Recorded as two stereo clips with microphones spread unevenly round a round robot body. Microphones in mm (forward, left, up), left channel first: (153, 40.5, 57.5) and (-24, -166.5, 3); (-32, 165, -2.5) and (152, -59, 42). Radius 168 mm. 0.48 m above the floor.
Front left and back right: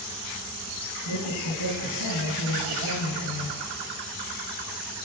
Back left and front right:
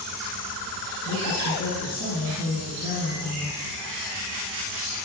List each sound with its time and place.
1.1 s a woman speaking: 75° left, 6.5 m